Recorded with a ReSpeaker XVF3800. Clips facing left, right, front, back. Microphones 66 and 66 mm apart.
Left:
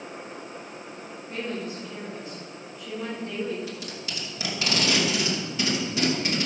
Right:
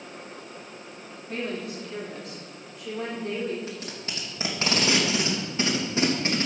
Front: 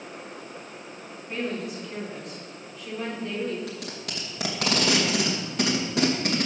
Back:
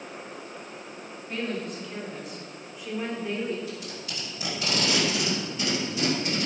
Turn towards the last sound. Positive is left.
turn(degrees=-30)